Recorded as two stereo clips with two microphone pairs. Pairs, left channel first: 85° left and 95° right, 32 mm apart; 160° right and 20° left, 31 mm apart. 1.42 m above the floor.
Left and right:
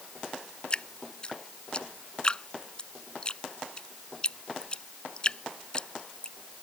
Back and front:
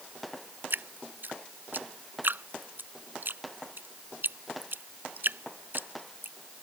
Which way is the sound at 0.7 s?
20° left.